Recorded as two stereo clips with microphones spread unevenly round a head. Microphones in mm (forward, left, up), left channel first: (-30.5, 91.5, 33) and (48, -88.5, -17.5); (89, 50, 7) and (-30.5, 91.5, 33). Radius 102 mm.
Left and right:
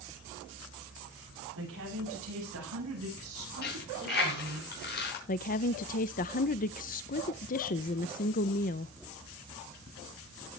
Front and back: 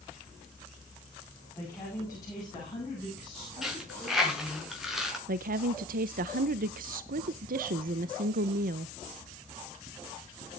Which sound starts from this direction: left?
A dropped coin, at 3.6 s.